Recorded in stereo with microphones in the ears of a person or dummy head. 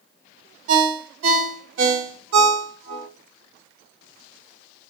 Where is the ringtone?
75° right (ahead or behind), 0.7 m.